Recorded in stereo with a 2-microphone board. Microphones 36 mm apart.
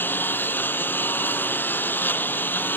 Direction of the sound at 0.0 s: 65° left (ahead or behind).